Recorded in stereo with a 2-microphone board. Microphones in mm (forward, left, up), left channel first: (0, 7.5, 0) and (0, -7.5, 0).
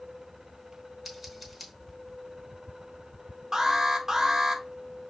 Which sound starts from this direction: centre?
Scissors, at 1.1 s.